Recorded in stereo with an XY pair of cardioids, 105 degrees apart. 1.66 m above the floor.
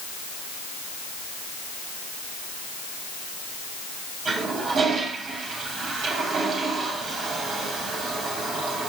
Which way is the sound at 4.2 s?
60° right.